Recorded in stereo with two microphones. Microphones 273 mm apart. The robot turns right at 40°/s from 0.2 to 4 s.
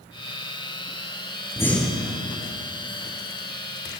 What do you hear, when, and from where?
1.6 s breathing: 10° left (ahead or behind), 1.8 m; by 2.2 s 10° right (ahead or behind), 1.8 m